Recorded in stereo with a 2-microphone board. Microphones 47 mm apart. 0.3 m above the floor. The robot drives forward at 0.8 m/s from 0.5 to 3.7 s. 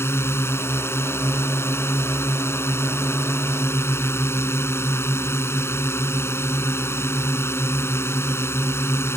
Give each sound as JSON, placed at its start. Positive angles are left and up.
{"t": 0.0, "sound": "a drone", "side_deg": 65}